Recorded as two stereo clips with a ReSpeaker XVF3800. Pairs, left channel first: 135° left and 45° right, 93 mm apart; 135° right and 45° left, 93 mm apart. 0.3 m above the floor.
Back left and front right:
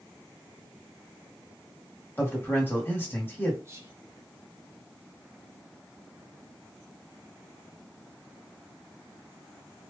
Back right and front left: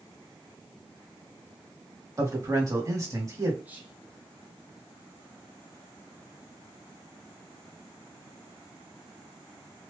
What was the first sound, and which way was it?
A man speaking, 80° left.